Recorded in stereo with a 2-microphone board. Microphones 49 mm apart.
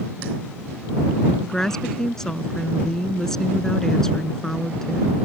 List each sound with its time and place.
1.4 s a woman speaking: 10° left (ahead or behind)